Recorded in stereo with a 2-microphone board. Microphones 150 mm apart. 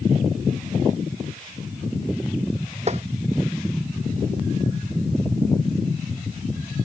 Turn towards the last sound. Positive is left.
turn(degrees=-45)  # may be behind; listen again after turning